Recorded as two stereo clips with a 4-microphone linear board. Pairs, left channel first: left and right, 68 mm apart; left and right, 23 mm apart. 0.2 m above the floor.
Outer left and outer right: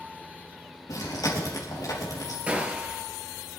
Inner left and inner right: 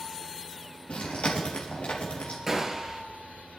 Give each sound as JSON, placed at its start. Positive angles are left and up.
{"t": 0.9, "sound": "chewing", "side_deg": 65, "distance_m": 4.5}
{"t": 2.5, "sound": "a gunshot", "side_deg": -20, "distance_m": 1.9}